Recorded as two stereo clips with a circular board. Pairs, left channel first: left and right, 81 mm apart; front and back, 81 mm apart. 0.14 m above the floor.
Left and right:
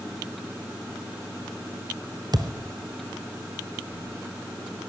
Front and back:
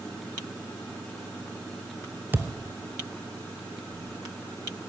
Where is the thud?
115° right, 1.0 m.